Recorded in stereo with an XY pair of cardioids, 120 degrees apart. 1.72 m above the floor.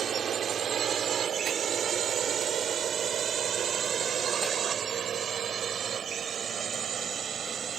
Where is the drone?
45° right; by 7.8 s 40° right.